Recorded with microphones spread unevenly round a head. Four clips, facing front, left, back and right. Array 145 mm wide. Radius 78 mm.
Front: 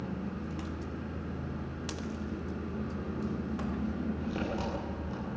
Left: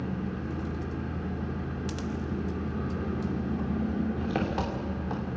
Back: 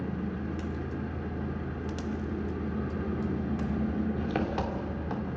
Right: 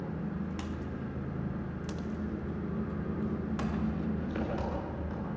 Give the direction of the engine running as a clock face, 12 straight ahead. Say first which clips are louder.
Left 3 dB, back 4 dB; 8 o'clock.